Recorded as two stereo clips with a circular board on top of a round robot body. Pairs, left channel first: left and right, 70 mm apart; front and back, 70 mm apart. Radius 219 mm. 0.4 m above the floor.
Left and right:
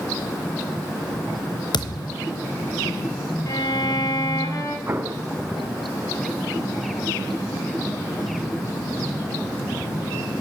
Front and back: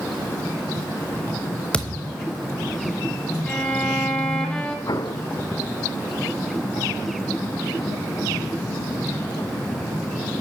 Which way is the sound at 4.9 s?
30° right.